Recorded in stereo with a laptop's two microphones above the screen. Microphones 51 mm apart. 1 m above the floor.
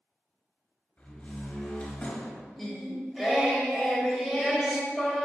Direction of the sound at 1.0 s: 30° left (ahead or behind).